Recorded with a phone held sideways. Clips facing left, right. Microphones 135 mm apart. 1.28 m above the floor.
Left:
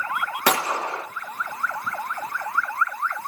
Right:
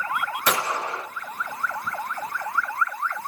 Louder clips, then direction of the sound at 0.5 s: Left 3 dB; 75° left (ahead or behind).